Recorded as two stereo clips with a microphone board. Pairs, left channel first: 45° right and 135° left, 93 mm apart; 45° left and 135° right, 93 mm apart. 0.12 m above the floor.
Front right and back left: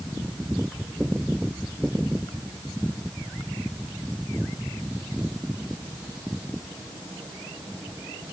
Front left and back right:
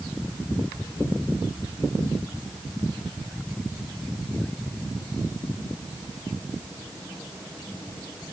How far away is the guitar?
No guitar in this recording.